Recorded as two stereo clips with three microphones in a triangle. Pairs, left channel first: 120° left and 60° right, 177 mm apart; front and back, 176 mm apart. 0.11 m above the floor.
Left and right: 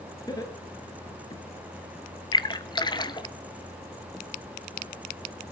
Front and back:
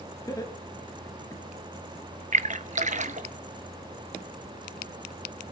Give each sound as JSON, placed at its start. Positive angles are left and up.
{"t": 0.3, "sound": "laughter", "azimuth_deg": 60, "distance_m": 2.0}
{"t": 2.3, "sound": "a splash", "azimuth_deg": 170, "distance_m": 0.6}